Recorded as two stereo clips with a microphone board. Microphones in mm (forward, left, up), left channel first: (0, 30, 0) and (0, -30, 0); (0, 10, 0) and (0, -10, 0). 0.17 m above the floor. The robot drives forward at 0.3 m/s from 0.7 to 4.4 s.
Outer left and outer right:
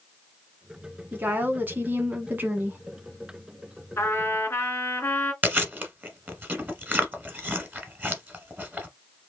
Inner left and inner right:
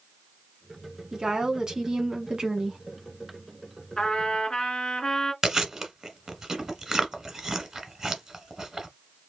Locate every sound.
1.1 s a woman speaking: 30° right (ahead or behind), 1.2 m
4.0 s a trumpet: 40° left (ahead or behind), 2 m
5.4 s chewing: 30° right (ahead or behind), 1.3 m